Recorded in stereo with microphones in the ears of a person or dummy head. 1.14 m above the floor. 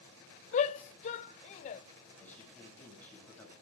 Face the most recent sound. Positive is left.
turn(degrees=10)  # may be behind; listen again after turning